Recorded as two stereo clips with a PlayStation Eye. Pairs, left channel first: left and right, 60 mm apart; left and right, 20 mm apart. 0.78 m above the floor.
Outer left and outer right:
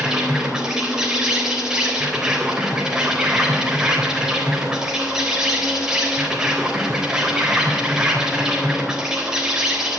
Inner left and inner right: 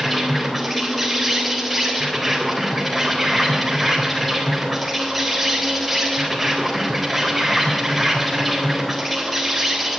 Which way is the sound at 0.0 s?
10° right (ahead or behind).